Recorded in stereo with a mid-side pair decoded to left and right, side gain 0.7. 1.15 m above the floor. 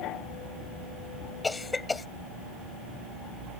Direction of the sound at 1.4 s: 15° left.